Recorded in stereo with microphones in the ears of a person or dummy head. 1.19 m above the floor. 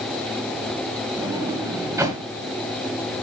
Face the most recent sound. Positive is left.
turn(degrees=-15)  # may be behind; listen again after turning